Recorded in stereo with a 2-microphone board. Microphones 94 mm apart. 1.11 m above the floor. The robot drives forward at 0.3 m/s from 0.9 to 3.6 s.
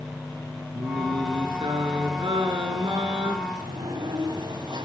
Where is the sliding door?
60° right (ahead or behind), 2.5 m.